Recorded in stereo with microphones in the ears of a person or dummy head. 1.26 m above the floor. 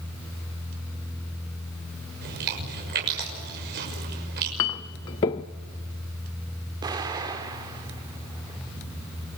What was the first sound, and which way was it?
Chewing, 65° right (ahead or behind).